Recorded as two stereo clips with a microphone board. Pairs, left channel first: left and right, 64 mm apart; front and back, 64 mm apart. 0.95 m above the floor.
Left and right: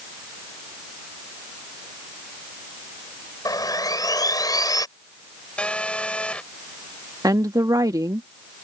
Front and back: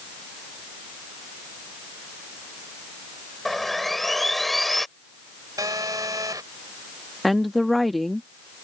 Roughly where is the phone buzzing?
Behind.